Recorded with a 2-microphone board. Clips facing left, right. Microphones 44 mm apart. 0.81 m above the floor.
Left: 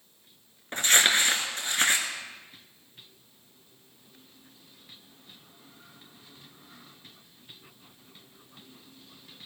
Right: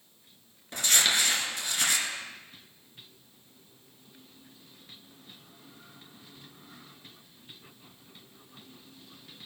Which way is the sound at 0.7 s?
40° left (ahead or behind).